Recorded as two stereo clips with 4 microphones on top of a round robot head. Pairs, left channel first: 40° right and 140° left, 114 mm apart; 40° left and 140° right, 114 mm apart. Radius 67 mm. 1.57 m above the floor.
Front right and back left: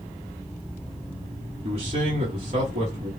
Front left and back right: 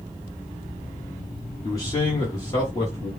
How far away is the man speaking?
About 1.4 m.